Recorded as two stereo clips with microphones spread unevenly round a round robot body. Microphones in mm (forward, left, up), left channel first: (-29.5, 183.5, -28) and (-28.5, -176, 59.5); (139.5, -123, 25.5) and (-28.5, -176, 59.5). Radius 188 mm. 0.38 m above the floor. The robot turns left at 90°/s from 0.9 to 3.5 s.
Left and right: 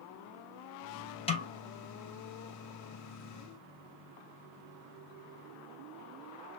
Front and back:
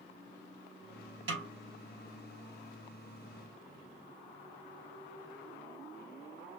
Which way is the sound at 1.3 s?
170° left.